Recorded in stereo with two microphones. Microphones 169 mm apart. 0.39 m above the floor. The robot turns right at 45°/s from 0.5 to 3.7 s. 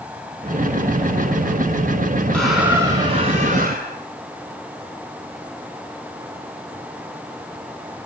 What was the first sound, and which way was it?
A squeak, 175° left.